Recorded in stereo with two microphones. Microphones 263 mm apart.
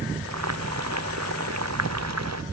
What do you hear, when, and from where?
0.2 s boiling: 80° right